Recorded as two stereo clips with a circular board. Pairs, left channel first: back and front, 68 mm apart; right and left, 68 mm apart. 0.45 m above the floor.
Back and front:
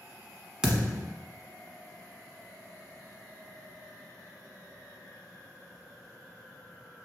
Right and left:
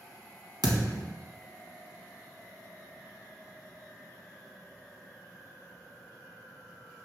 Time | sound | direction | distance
0.6 | a thud | 75° left | 1.0 m